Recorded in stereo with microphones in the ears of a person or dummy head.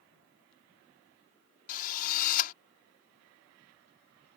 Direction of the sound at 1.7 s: 45° left (ahead or behind).